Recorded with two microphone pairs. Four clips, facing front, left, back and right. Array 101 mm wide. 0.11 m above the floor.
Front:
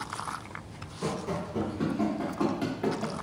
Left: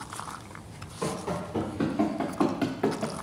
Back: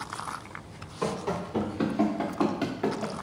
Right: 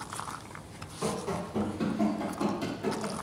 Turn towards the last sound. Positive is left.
turn(degrees=100)